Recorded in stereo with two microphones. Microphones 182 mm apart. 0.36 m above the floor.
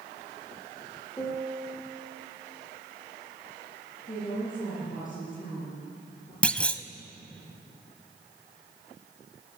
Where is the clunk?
5° left (ahead or behind), 0.7 m.